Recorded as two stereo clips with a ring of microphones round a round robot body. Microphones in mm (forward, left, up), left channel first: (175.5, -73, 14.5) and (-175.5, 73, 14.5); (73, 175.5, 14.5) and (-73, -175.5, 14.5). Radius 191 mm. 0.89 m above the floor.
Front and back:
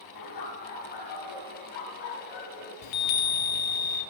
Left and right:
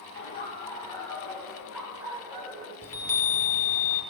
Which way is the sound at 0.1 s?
10° left.